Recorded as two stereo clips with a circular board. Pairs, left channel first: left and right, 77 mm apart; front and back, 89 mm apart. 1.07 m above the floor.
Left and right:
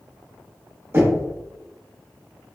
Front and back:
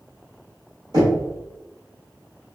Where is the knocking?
145° right, 1.9 m.